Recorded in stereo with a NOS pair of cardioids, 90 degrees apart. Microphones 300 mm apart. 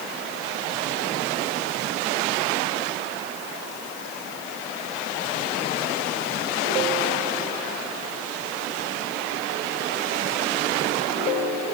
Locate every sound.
Only background noise.